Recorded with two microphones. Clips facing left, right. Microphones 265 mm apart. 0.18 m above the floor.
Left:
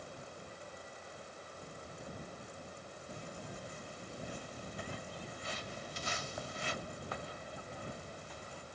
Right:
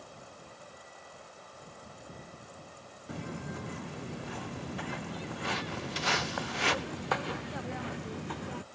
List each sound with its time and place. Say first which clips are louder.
3.1 s footsteps: right 9 dB; 90° right; by 8.6 s 65° right (ahead or behind)